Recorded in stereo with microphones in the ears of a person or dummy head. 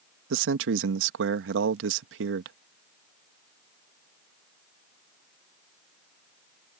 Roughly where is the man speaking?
Right.